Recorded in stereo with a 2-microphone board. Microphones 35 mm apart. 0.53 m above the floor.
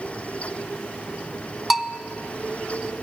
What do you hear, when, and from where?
1.7 s a bell: centre (ahead or behind), 0.7 m